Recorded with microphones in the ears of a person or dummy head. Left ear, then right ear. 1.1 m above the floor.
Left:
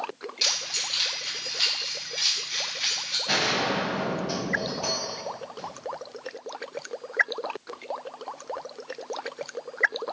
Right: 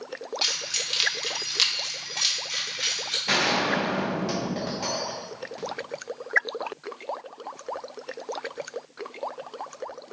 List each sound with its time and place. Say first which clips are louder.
0.4 s keys jangling: left 1 dB; centre (ahead or behind), 1.1 m; by 3.2 s 85° right, 2 m
3.3 s a gunshot: right 2 dB; 65° right (ahead or behind), 1.5 m